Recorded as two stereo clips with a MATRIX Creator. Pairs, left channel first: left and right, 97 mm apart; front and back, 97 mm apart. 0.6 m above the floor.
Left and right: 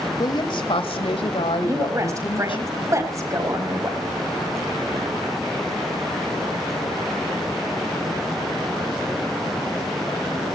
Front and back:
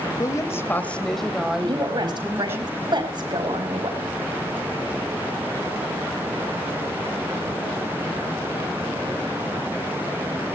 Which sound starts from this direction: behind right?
A woman speaking, at 1.6 s.